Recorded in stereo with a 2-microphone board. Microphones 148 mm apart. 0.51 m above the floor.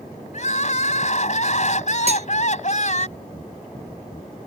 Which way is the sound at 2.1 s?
45° right (ahead or behind).